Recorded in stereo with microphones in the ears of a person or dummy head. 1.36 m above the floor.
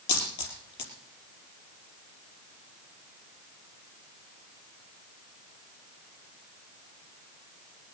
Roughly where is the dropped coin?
Left.